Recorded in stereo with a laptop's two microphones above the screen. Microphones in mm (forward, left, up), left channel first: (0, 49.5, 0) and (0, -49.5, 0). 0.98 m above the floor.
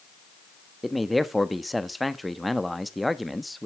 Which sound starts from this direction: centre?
A man speaking, at 0.8 s.